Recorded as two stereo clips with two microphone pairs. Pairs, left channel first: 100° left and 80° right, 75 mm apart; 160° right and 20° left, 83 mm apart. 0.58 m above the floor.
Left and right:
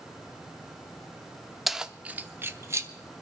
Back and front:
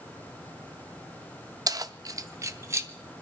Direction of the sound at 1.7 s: 10° left.